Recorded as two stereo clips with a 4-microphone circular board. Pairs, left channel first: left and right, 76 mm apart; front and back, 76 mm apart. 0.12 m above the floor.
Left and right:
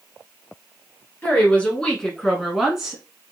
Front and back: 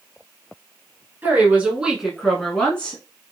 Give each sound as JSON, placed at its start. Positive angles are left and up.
{"t": 1.2, "sound": "a woman speaking", "azimuth_deg": 140, "distance_m": 1.2}